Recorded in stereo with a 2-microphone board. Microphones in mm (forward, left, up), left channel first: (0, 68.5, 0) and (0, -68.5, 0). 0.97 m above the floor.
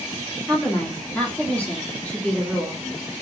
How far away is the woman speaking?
About 2 m.